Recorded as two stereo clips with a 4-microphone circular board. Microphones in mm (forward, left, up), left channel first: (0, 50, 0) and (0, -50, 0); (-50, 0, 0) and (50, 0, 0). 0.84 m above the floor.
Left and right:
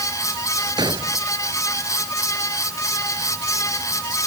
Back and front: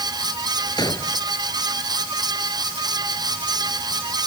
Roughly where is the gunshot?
Behind right.